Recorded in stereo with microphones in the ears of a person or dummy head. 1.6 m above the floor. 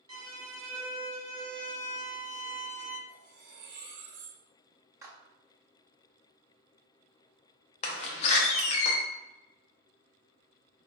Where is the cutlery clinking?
40° right (ahead or behind), 1.7 m.